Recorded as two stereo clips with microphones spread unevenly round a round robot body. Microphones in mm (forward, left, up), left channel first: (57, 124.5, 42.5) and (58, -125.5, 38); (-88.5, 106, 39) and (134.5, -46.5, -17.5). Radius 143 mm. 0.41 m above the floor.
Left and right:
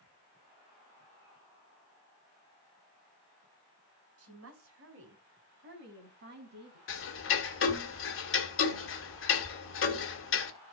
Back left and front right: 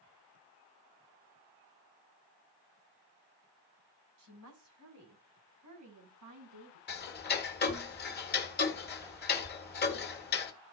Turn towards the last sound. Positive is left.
turn(degrees=90)